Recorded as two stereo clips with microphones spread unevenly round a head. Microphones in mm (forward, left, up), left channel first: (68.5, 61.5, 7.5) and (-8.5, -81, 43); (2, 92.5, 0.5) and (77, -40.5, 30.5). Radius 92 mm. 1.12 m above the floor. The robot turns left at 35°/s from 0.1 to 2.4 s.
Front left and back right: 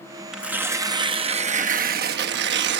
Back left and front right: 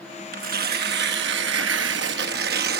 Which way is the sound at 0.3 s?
30° right.